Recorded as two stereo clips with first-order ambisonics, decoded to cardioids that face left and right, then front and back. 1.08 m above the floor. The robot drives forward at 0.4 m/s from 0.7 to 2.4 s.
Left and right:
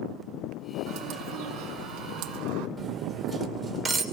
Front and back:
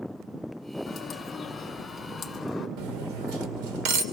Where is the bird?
70° right, 3 m; by 2.7 s 80° right, 3 m.